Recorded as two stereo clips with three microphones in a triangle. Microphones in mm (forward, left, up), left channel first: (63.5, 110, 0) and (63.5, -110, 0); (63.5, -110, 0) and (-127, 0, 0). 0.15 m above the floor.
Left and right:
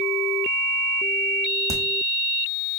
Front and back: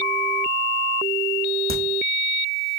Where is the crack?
165° right, 1.9 m.